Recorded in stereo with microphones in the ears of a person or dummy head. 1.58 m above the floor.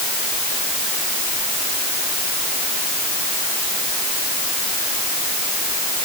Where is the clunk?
No clunk in this recording.